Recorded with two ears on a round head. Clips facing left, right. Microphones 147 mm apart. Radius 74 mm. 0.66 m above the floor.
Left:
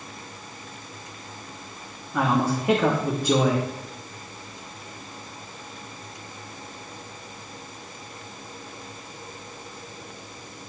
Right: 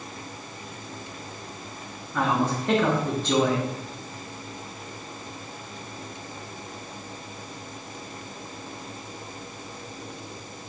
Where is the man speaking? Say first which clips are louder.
Left 2 dB; 10° left (ahead or behind), 0.9 m.